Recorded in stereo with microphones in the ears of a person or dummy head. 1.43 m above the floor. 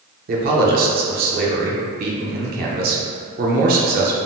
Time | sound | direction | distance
0.3 | a man speaking | 50° right (ahead or behind) | 0.5 m